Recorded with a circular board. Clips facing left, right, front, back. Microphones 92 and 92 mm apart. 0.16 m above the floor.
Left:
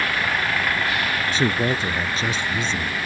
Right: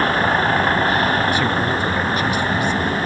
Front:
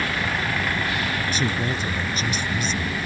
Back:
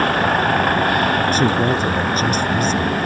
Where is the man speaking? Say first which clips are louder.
Right 3 dB, back 9 dB; 150° left.